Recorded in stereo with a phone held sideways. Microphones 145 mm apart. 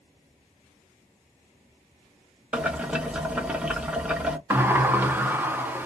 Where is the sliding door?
15° right (ahead or behind), 0.5 m.